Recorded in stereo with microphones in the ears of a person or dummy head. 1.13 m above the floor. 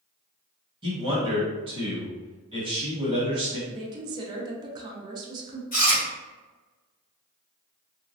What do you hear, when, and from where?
0.8 s a man speaking: 25° right (ahead or behind), 1.3 m
3.7 s a woman speaking: 20° right (ahead or behind), 0.5 m
5.7 s chewing: 40° left (ahead or behind), 1.5 m